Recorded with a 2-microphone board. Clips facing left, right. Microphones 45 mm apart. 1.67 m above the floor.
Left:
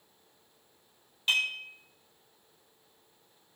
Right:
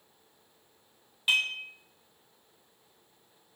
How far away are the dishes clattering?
About 0.6 m.